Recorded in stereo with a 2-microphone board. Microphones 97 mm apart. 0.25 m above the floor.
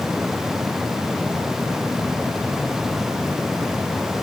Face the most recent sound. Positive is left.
No sound to turn to.